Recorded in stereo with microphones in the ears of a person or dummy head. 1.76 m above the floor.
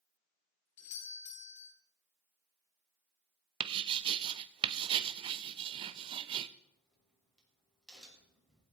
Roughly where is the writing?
Right.